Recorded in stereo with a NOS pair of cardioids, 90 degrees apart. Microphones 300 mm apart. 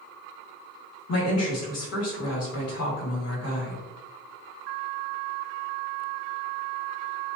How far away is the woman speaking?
About 1.5 m.